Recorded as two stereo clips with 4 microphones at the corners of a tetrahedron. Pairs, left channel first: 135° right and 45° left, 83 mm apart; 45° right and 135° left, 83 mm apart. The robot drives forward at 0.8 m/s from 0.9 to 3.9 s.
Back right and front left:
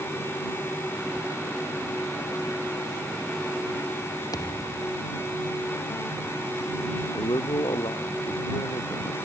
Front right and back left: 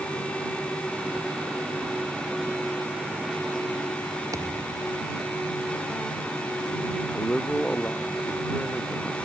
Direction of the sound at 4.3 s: 175° right.